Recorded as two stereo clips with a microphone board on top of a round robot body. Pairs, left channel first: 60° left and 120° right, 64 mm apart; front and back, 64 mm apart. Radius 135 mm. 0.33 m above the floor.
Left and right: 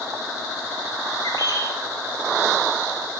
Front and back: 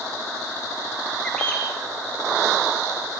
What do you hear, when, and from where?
1.2 s a bird: 80° left, 7 m